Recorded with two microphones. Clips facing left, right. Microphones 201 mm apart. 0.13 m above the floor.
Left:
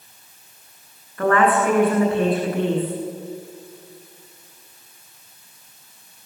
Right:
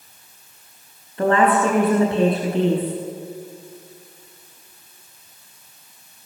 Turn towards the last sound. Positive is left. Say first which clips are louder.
# right 1 dB
turn(degrees=-25)  # may be behind; listen again after turning